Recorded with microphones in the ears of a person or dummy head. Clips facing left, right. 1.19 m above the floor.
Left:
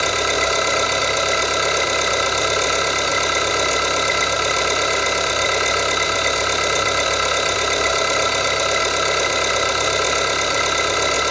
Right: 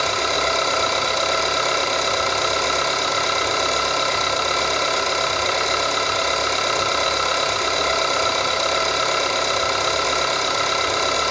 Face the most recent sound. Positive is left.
turn(degrees=25)  # may be behind; listen again after turning